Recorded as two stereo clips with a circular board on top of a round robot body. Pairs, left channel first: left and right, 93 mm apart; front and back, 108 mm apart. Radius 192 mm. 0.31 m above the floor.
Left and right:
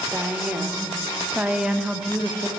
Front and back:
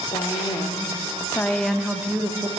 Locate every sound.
0.1 s a woman speaking: 20° right, 1.9 m; by 2.5 s straight behind, 1.4 m